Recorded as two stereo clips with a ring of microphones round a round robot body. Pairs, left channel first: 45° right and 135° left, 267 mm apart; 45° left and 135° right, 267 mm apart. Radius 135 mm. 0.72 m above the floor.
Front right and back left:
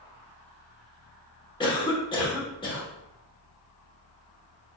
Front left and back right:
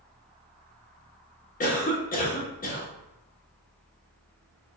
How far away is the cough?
About 0.9 m.